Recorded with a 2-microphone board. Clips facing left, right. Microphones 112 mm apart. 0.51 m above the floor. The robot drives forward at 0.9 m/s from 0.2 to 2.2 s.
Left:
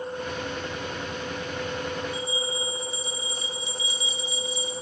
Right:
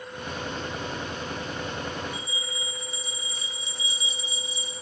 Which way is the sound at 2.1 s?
25° right (ahead or behind).